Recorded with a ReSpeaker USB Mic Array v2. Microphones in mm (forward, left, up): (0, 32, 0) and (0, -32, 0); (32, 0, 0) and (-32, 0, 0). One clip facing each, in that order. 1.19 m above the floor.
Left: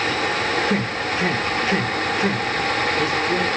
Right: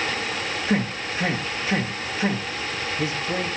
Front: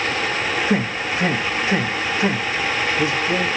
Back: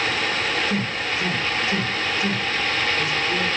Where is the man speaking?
25° right, 1.5 m.